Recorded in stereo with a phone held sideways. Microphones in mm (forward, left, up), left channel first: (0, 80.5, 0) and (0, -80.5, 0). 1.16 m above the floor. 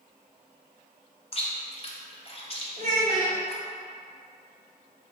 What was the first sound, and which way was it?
Chewing, 40° left (ahead or behind).